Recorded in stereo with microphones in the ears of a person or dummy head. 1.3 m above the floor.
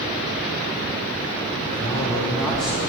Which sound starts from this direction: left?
A man speaking, at 1.7 s.